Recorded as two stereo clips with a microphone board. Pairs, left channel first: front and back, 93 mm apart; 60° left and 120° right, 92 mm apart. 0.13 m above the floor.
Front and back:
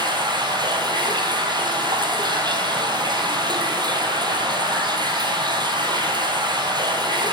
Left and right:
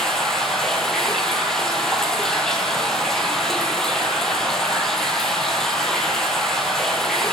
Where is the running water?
145° left, 1.3 m.